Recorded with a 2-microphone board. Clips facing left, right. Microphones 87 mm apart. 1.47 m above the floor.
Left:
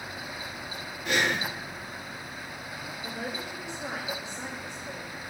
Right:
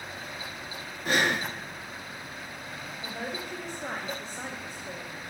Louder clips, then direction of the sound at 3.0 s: Even; 30° right (ahead or behind).